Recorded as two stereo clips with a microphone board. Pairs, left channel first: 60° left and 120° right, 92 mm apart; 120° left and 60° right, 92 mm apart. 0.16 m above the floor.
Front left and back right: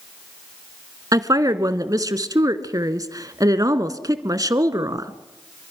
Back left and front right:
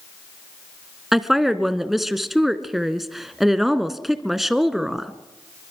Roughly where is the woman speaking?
Behind right.